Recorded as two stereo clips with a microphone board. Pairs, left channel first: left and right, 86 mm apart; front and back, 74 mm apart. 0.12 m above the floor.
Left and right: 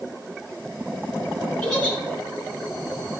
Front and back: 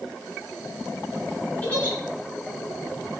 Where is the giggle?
20° left, 1.5 m.